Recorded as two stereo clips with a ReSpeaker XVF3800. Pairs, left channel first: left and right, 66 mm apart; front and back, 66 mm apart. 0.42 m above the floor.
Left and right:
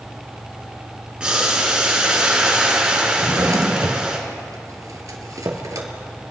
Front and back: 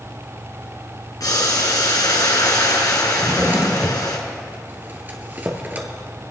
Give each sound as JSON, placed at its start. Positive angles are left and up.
{"t": 1.2, "sound": "boiling", "azimuth_deg": -15, "distance_m": 2.5}
{"t": 3.2, "sound": "a drawer", "azimuth_deg": -115, "distance_m": 1.7}